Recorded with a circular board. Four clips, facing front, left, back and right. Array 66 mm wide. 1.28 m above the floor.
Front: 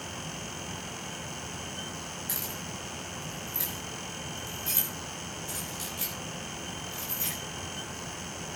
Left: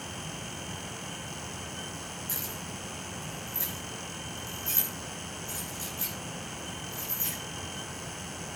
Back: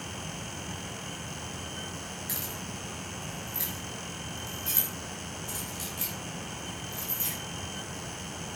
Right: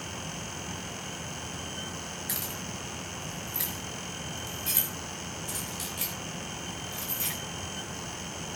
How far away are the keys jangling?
About 7.5 m.